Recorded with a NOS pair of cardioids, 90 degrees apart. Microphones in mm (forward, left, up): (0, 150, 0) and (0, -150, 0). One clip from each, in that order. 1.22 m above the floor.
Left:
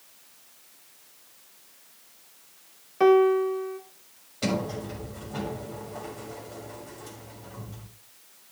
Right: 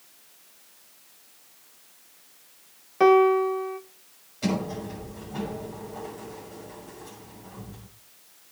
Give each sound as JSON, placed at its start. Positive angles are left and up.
{"t": 3.0, "sound": "a piano", "azimuth_deg": -15, "distance_m": 1.1}
{"t": 4.4, "sound": "a sliding door", "azimuth_deg": 40, "distance_m": 6.5}